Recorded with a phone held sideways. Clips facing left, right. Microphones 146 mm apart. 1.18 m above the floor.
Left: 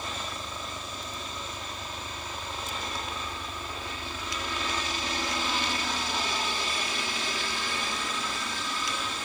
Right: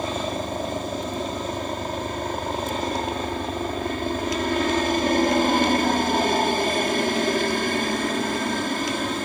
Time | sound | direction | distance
0.0 | a helicopter | 60° right (ahead or behind) | ?